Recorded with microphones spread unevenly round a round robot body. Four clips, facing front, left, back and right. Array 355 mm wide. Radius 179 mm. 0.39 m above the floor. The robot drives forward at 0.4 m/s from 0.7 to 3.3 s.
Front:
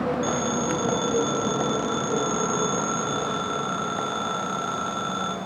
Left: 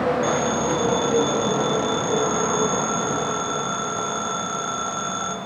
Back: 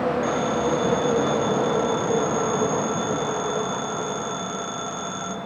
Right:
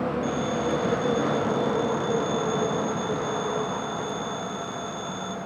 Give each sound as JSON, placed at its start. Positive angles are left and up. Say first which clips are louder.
{"t": 0.2, "sound": "a phone ringing", "louder": "left 4 dB, back 3 dB", "azimuth_deg": 30, "distance_m": 3.5}